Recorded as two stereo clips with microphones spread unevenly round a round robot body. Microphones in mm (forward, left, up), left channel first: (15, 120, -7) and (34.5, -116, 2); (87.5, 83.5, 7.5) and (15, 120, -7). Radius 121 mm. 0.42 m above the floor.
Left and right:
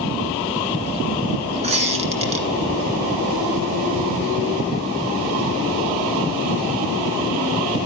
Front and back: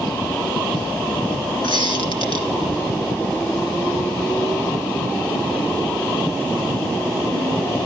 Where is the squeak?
20° right, 1.9 m.